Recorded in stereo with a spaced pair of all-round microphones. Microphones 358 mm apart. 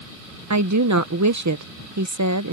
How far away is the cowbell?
I don't hear a cowbell.